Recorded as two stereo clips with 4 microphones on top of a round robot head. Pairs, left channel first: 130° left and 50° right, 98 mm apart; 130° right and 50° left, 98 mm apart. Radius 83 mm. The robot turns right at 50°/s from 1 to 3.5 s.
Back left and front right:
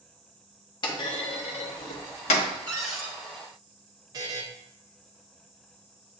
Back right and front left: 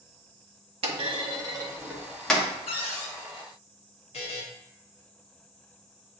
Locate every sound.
0.8 s a clunk: 80° left, 0.7 m; by 2.5 s 155° left, 0.7 m
2.7 s a cupboard door: 150° right, 1.0 m; by 3.1 s 130° right, 1.0 m
4.1 s a buzzer: 105° right, 0.6 m